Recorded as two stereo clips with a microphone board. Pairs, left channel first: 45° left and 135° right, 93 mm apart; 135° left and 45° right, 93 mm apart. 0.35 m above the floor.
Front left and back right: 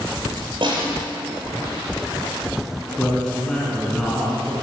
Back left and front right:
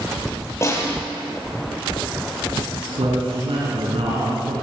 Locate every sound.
0.6 s a snare drum: 165° right, 9 m
3.0 s a man speaking: 35° right, 4.5 m